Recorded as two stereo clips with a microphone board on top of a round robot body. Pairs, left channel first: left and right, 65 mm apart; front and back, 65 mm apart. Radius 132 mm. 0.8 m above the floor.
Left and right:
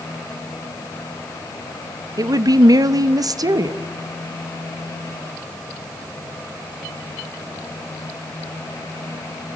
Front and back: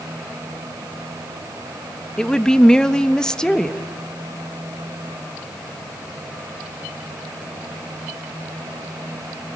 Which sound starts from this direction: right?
A woman speaking, at 2.2 s.